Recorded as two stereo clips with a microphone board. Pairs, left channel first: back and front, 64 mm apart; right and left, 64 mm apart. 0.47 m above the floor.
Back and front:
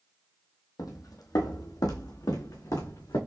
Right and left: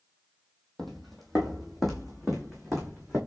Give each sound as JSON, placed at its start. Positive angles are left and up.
{"t": 0.8, "sound": "footsteps", "azimuth_deg": 180, "distance_m": 1.1}